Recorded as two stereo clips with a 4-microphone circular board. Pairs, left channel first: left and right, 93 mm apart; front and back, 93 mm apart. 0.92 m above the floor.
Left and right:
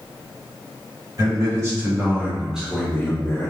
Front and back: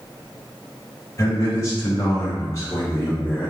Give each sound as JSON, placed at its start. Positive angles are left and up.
{"t": 1.2, "sound": "a man speaking", "azimuth_deg": -50, "distance_m": 1.4}